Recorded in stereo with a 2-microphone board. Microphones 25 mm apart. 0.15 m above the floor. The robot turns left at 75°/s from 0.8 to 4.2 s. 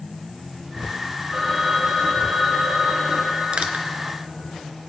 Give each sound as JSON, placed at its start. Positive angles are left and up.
{"t": 1.3, "sound": "a phone ringing", "azimuth_deg": -10, "distance_m": 6.5}
{"t": 3.5, "sound": "crushing", "side_deg": -55, "distance_m": 1.0}